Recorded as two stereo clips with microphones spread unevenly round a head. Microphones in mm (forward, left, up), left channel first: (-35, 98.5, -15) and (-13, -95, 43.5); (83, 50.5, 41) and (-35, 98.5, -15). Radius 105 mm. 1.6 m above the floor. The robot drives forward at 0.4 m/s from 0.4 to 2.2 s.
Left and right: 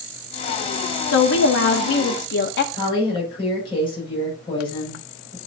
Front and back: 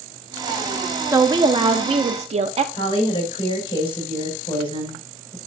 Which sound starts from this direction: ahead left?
A woman speaking, at 2.7 s.